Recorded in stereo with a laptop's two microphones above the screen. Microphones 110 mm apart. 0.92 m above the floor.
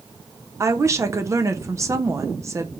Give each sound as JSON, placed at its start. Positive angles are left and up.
{"t": 0.6, "sound": "a woman speaking", "side_deg": -30, "distance_m": 0.5}